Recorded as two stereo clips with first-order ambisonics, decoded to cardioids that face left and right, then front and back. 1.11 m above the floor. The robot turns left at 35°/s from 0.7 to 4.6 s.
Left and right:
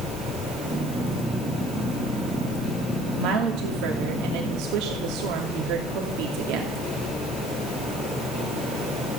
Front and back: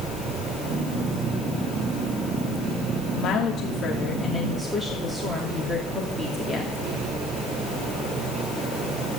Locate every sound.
3.1 s a woman speaking: 45° right, 2.5 m; by 6.8 s 100° right, 2.5 m